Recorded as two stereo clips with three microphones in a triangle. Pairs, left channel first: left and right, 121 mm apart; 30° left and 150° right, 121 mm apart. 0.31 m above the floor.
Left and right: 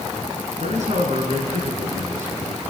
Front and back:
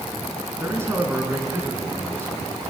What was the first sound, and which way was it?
A man speaking, 80° right.